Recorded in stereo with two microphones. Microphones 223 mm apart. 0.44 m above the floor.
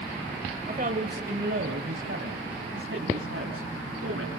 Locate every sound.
0.7 s a man speaking: 40° right (ahead or behind), 1.8 m; by 4.3 s 80° right, 4 m